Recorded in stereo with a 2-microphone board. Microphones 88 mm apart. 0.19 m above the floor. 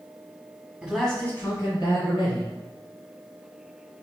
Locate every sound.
0.8 s a man speaking: 10° right (ahead or behind), 1.1 m; by 2.5 s 60° left (ahead or behind), 2.0 m